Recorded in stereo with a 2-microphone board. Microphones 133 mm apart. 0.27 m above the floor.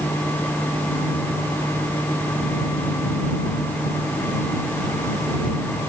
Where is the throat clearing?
No throat clearing in this recording.